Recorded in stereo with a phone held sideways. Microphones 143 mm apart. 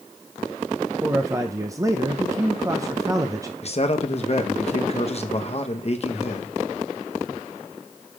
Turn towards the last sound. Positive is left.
turn(degrees=45)  # may be behind; listen again after turning